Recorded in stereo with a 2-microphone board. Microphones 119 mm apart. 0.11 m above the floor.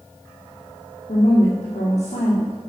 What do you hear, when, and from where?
1.1 s a woman speaking: 70° left (ahead or behind), 4.5 m